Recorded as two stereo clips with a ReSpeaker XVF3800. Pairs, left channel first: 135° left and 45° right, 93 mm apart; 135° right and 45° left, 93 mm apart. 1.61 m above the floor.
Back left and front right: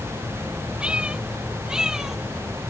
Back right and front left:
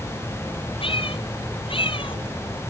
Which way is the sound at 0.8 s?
120° right.